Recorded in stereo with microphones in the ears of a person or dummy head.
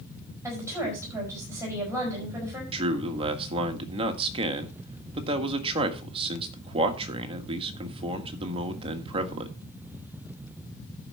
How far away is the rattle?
No rattle in this recording.